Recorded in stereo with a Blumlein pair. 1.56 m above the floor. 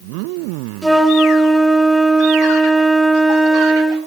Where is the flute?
5° right, 1.6 m.